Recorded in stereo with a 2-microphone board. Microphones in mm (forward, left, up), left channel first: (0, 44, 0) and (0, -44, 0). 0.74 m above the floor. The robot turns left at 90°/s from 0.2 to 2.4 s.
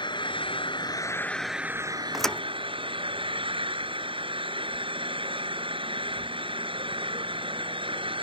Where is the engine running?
115° left; by 8.2 s 85° right.